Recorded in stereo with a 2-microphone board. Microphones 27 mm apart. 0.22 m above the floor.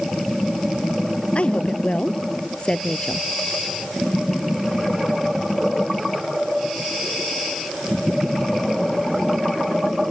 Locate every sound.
1.4 s a woman speaking: 50° left (ahead or behind); by 3.2 s 35° left (ahead or behind)